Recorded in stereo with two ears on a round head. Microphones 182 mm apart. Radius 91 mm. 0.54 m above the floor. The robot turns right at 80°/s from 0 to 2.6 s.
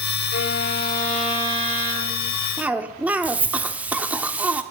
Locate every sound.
0.3 s a violin: 110° left, 3 m; by 2.3 s 95° right, 3 m
2.6 s a cough: 10° right (ahead or behind), 1.2 m; by 4.6 s 5° right (ahead or behind), 1.2 m